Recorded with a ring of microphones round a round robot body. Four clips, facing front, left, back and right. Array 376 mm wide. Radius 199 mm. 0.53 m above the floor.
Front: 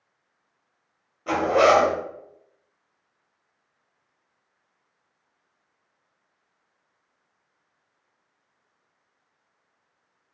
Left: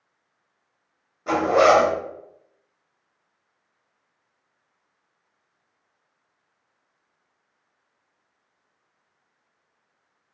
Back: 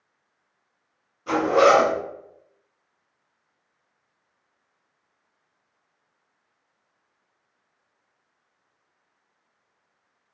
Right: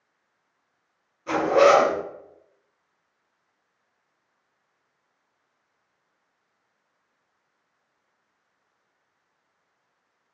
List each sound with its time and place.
1.3 s a zipper: 55° left, 1.2 m